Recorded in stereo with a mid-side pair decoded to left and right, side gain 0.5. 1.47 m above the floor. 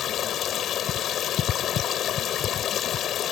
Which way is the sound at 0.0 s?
60° left.